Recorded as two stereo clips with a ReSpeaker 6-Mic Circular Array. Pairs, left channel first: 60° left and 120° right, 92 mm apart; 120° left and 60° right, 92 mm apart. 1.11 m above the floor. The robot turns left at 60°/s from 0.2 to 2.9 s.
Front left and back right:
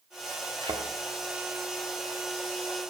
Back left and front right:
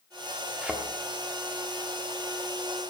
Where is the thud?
135° right, 1.1 m; by 0.8 s 150° right, 1.1 m.